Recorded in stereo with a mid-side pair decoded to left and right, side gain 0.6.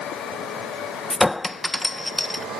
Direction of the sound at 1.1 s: 10° left.